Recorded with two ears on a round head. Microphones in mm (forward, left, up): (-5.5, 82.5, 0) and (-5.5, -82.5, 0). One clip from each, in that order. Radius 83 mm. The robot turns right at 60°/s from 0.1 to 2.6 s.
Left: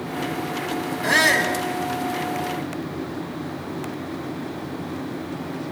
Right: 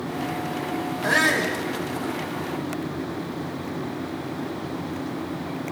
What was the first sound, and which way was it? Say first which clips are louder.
A shout: left 3 dB; 40° left.